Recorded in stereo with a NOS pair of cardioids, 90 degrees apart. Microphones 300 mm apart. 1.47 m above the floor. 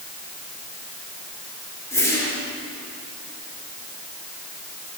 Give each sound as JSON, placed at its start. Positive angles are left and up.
{"t": 1.9, "sound": "a whoosh", "azimuth_deg": 10, "distance_m": 3.0}